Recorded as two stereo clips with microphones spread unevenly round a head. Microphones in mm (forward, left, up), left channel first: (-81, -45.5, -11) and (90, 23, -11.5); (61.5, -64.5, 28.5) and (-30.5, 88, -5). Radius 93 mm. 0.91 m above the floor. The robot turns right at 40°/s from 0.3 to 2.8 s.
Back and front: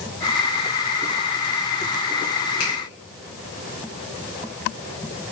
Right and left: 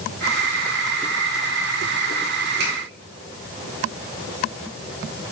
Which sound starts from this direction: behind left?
A finger snap, at 2.6 s.